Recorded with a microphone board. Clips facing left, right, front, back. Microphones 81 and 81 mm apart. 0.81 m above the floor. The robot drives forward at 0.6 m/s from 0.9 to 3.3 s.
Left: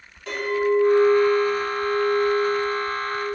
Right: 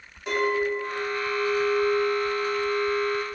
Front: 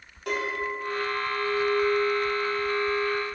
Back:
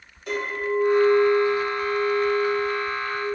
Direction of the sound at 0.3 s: 15° right.